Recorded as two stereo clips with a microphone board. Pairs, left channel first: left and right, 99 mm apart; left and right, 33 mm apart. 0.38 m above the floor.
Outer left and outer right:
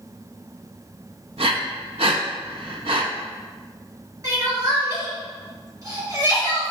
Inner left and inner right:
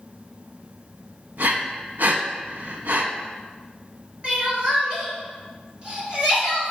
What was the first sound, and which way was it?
Breathing, 70° right (ahead or behind).